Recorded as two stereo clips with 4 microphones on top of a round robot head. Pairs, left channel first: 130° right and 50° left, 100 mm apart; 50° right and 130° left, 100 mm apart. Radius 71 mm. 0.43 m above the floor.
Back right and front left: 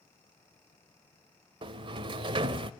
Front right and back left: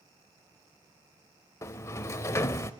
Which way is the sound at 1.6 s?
10° left.